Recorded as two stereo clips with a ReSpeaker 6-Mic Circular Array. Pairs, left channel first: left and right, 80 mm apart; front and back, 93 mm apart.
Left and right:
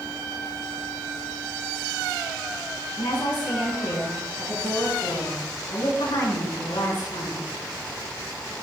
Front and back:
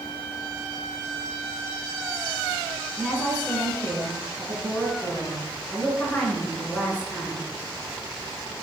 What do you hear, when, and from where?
3.0 s a woman speaking: 75° left, 4.5 m